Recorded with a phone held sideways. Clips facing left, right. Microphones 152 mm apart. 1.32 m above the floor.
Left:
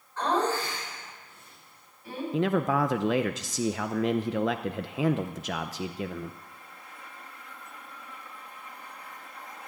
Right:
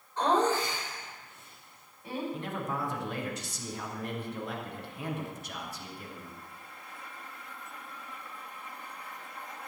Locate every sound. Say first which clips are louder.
0.2 s laughter: right 1 dB; 20° right (ahead or behind), 4.5 m
2.3 s a man speaking: left 10 dB; 80° left, 0.7 m